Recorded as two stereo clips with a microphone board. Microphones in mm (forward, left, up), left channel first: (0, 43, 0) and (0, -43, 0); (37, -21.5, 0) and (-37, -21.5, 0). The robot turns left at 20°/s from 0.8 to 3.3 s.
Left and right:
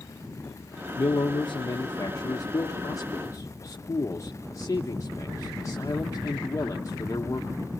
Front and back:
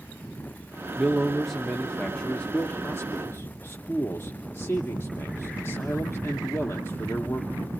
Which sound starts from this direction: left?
A man speaking, at 1.0 s.